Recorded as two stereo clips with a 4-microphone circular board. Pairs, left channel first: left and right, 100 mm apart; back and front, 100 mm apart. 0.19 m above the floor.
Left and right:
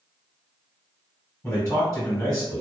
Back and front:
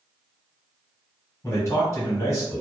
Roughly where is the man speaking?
Behind left.